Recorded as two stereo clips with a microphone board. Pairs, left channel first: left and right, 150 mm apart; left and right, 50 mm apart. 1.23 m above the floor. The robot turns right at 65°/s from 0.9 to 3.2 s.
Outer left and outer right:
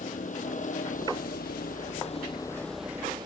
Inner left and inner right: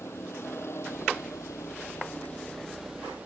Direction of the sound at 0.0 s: 55° left.